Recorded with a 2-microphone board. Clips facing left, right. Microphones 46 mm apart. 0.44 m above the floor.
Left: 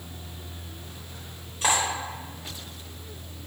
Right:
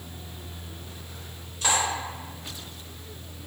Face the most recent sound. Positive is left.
turn(degrees=25)  # may be behind; listen again after turning